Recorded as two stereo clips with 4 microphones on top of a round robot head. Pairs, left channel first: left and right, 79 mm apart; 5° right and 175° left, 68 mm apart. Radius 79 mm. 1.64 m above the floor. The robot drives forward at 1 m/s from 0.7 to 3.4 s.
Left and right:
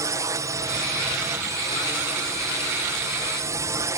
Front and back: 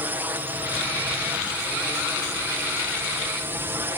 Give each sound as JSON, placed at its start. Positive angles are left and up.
{"t": 0.0, "sound": "a drone", "azimuth_deg": -130}